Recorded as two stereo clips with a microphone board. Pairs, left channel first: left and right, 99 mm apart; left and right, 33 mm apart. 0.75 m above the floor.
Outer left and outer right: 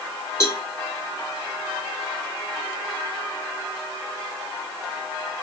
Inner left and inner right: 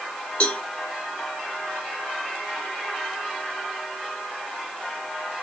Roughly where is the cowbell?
Left.